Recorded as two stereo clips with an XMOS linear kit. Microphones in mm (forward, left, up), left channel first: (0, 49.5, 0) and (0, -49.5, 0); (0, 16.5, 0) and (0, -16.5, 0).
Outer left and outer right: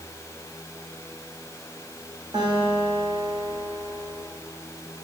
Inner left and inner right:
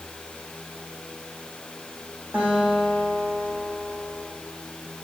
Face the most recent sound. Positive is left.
turn(degrees=-45)  # may be behind; listen again after turning